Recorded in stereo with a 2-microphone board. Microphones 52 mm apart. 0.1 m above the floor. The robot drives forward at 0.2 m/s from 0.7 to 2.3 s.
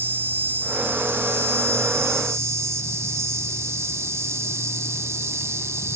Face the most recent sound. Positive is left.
turn(degrees=-65)  # may be behind; listen again after turning